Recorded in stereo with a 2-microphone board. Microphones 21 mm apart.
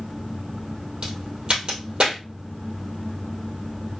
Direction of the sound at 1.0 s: 45° right (ahead or behind).